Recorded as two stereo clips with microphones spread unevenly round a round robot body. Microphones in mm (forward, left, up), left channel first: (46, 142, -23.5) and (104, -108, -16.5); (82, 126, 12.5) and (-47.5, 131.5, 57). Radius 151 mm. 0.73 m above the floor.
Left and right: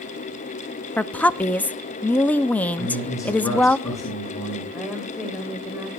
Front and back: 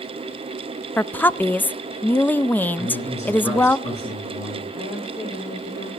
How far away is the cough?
I don't hear a cough.